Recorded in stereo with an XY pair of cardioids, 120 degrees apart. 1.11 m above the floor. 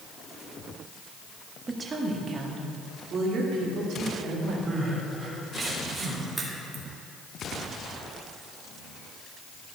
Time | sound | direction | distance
1.7 | a woman speaking | 25° right | 1.5 m
4.7 | crying | 25° right | 2.5 m
6.4 | a crack | 35° right | 1.8 m